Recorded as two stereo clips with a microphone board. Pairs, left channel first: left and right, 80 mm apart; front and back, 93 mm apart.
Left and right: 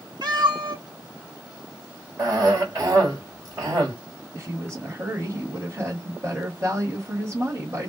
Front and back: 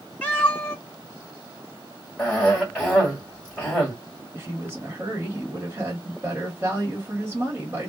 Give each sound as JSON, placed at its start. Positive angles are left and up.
{"t": 0.2, "sound": "a cat meowing", "azimuth_deg": -75, "distance_m": 1.3}
{"t": 2.2, "sound": "a cough", "azimuth_deg": -85, "distance_m": 1.7}
{"t": 4.3, "sound": "a woman speaking", "azimuth_deg": -125, "distance_m": 1.3}